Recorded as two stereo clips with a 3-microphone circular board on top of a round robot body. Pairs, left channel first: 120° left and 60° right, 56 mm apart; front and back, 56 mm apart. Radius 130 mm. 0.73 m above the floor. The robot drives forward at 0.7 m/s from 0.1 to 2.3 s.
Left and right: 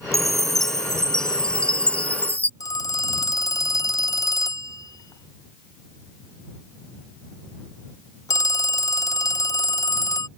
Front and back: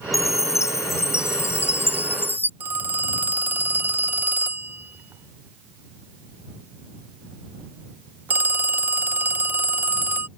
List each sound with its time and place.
0.1 s a chime: 35° left; by 2.5 s 55° left
2.6 s a phone ringing: 120° left